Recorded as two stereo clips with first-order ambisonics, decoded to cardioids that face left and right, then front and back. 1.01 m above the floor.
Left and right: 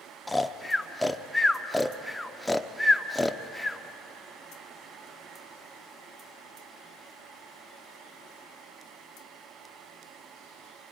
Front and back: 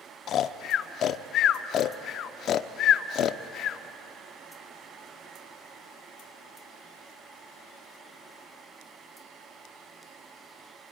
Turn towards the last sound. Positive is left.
turn(degrees=5)